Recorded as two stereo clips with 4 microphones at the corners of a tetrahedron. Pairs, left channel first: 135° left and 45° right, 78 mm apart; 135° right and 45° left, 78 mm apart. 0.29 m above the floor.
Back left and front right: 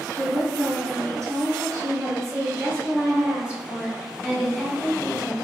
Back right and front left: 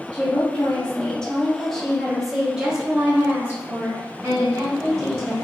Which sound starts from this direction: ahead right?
A woman speaking, at 0.1 s.